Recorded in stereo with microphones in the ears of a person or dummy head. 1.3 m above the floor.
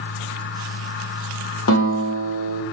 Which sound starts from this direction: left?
A guitar, at 1.7 s.